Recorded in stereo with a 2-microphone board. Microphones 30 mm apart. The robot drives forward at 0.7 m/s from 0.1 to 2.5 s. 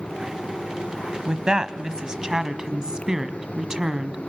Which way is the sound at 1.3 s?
30° right (ahead or behind).